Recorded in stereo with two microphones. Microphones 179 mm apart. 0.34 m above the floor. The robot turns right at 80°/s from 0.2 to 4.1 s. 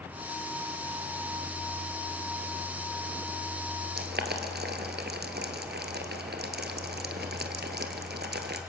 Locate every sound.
4.0 s boiling: 70° right (ahead or behind), 1.6 m; by 8.6 s 80° right, 1.6 m